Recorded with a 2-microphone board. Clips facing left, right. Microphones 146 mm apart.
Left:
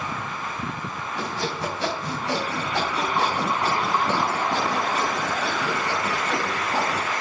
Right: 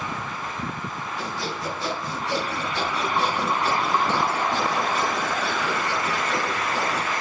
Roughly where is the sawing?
Left.